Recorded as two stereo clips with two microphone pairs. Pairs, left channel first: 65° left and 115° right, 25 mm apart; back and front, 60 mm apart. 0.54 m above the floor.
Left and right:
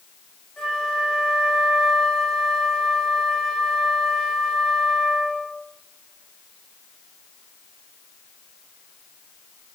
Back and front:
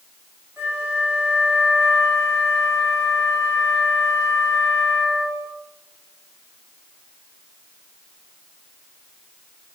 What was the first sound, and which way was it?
A flute, 10° left.